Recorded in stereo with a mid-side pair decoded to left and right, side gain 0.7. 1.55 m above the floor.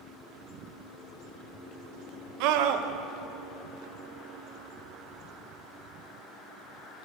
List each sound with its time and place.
2.4 s a scream: 65° right, 1.6 m